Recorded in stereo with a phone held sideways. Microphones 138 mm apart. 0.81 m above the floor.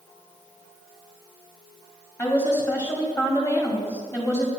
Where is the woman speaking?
20° left (ahead or behind), 2.0 m.